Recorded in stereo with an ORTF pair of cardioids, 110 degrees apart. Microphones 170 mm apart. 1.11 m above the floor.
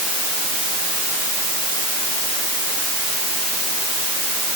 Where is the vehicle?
No vehicle in this recording.